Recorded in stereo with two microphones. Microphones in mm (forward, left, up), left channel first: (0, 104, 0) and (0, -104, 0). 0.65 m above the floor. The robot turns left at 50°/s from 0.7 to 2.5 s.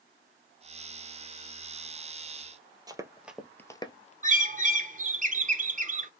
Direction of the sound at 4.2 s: 40° right (ahead or behind).